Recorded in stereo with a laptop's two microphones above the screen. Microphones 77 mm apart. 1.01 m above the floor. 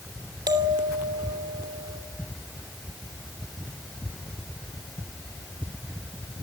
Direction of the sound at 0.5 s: 75° right (ahead or behind).